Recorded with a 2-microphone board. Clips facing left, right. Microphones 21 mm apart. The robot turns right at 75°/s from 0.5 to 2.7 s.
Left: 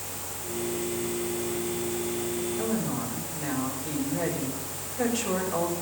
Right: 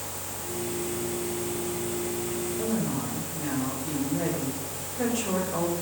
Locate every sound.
2.6 s a woman speaking: 25° left (ahead or behind), 6 m; by 5.7 s 15° left (ahead or behind), 6 m